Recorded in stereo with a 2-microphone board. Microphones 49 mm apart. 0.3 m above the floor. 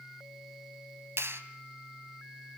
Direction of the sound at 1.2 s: 55° right (ahead or behind).